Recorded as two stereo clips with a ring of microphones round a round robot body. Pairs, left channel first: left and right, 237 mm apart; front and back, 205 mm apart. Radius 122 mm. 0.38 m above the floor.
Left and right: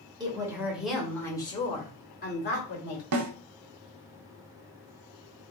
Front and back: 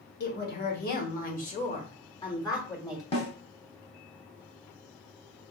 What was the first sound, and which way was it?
A woman speaking, 20° right.